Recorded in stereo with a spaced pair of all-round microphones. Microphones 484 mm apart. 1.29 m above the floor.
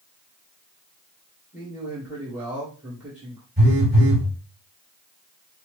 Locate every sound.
1.5 s a man speaking: 5° right (ahead or behind), 1.5 m
3.6 s a phone buzzing: 20° right (ahead or behind), 1.9 m